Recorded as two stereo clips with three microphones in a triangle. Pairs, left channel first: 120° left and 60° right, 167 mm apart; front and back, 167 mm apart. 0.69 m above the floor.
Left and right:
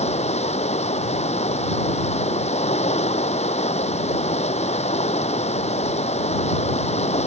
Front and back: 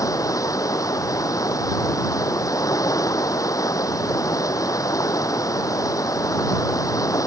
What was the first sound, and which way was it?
Running water, 70° left.